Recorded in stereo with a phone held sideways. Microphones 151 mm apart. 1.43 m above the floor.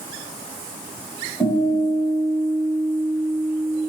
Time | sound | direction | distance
1.4 | a guitar | 15° right (ahead or behind) | 1.5 m